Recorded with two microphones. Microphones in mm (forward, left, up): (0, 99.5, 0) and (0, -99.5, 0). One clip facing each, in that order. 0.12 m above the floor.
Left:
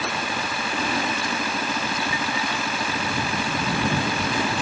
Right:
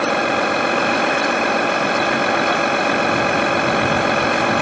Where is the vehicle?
65° right (ahead or behind).